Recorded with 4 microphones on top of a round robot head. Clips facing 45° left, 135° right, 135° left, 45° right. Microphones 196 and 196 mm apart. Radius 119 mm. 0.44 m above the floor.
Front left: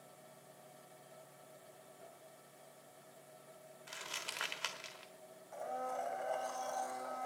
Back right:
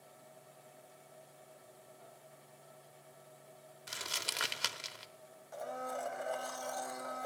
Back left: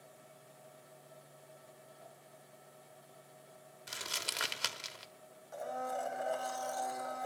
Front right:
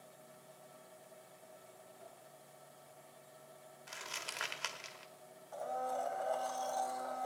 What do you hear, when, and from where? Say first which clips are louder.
2.0 s a whoosh: even, front right 1 dB; 15° right, 6.5 m
3.9 s crumpling: back right 6 dB, back left 4 dB; straight behind, 1.1 m
5.5 s a blender: back right 1 dB, even; 165° right, 1.8 m